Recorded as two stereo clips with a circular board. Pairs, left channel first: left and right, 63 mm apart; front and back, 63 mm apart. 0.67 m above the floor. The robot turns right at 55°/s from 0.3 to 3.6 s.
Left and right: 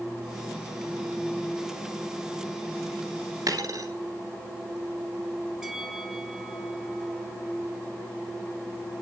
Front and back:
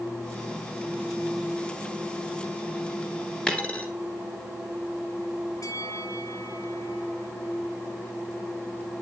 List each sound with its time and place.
3.5 s a dropped coin: 75° right, 1.9 m; by 3.9 s 70° right, 1.9 m
5.6 s a bell: 10° right, 3 m